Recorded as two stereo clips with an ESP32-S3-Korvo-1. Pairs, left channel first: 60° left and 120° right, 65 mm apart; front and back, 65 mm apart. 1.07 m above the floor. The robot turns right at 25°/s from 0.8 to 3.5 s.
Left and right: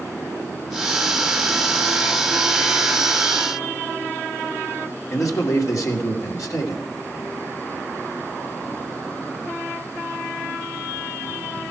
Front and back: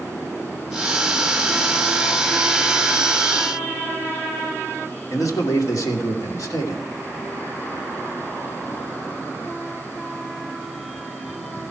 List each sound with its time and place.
5.1 s a man speaking: 30° left, 2.5 m